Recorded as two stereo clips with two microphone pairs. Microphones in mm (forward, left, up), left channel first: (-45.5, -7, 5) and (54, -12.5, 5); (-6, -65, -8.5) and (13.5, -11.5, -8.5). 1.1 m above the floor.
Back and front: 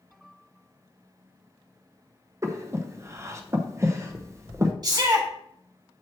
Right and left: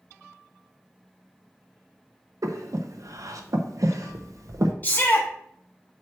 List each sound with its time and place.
2.4 s breathing: 55° left, 0.8 m
4.8 s a shout: 50° right, 1.9 m